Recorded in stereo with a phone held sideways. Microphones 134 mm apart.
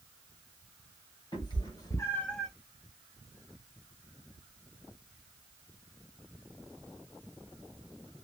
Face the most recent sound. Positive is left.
turn(degrees=-5)  # may be behind; listen again after turning